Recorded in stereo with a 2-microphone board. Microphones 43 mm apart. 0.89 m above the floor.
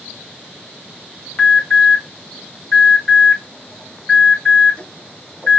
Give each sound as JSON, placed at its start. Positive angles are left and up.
{"t": 1.4, "sound": "an alarm", "side_deg": 25, "distance_m": 1.2}